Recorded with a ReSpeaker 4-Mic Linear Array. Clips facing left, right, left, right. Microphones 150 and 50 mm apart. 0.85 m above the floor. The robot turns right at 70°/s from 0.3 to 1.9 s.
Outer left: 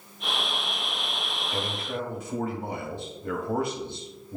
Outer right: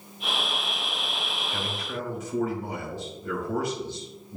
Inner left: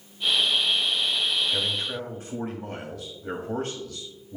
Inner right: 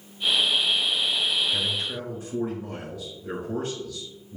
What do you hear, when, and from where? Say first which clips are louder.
1.5 s a man speaking: outer left 4 dB, even; 35° left (ahead or behind), 1.9 m; by 4.4 s 55° left (ahead or behind), 1.9 m